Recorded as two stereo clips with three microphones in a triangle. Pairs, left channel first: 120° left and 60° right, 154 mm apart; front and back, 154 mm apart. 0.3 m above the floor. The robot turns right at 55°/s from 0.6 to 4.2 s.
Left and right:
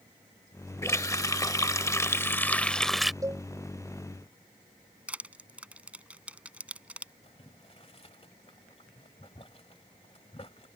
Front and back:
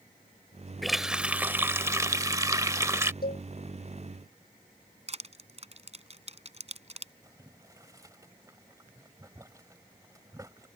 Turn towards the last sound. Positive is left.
turn(degrees=125)